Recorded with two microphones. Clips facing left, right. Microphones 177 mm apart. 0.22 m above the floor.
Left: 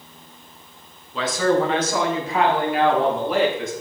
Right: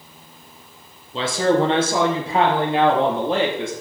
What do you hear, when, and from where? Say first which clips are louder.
1.1 s a man speaking: right 1 dB; 30° right (ahead or behind), 2 m